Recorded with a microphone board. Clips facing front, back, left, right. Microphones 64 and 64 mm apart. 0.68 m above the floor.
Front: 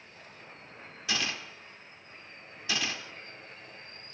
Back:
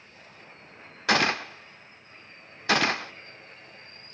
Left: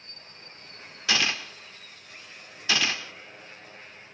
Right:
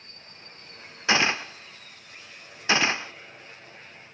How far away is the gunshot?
About 0.8 m.